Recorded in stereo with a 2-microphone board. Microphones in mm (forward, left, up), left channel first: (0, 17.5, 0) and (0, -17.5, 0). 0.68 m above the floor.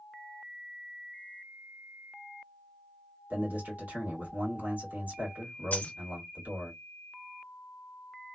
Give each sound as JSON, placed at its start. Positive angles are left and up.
{"t": 3.3, "sound": "a man speaking", "side_deg": -60, "distance_m": 1.7}
{"t": 5.7, "sound": "a dropped coin", "side_deg": 50, "distance_m": 0.8}